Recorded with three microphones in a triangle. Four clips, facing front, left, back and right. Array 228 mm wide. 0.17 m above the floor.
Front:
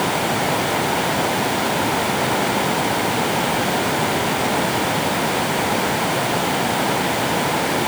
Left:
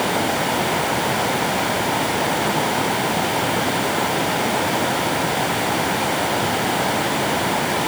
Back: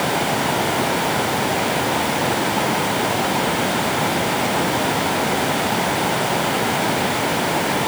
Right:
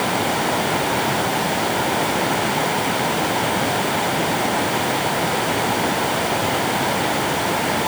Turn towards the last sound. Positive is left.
No sound to turn to.